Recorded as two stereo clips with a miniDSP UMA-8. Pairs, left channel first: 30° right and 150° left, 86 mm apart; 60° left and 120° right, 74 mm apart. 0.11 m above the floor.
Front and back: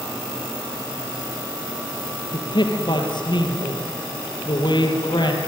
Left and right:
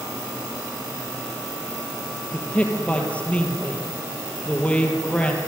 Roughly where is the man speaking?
Ahead.